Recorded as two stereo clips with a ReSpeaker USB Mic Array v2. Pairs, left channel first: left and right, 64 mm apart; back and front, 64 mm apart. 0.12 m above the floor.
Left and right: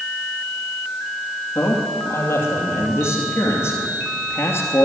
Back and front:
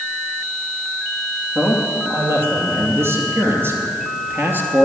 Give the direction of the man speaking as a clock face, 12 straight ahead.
11 o'clock.